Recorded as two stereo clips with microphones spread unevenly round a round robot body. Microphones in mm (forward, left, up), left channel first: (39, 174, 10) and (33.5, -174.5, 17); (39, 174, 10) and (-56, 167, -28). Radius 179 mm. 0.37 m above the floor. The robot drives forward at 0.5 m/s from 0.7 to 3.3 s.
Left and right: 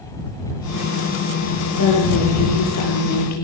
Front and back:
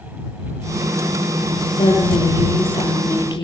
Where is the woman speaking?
40° left, 9.5 m; by 3.5 s 45° left, 9 m.